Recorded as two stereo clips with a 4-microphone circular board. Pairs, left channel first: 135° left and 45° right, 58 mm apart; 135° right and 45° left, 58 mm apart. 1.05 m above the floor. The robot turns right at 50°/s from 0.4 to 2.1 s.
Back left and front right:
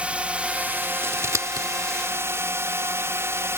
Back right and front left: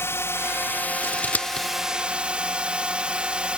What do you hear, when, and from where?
0.0 s a drone: 110° right; by 3.6 s 25° right
1.0 s scissors: 90° right; by 1.7 s 60° right